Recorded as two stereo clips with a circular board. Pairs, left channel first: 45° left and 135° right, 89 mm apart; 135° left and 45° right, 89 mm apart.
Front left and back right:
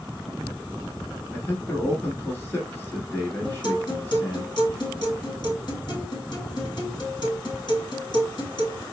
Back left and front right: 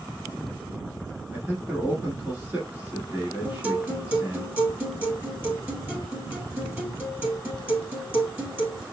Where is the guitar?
20° left, 1.8 m.